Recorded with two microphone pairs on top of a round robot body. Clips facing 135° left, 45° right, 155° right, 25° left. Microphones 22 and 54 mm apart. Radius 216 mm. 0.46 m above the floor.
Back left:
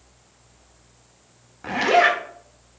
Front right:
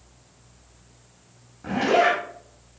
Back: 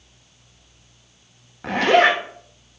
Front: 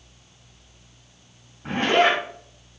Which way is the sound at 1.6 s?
Straight behind.